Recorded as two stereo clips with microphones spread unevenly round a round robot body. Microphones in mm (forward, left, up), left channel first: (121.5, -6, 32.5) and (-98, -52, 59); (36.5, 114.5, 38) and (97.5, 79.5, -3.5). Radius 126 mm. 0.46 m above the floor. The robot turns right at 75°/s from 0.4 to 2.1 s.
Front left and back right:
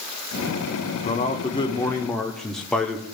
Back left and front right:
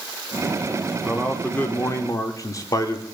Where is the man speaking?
10° left, 1.0 m; by 3.0 s 90° left, 1.0 m.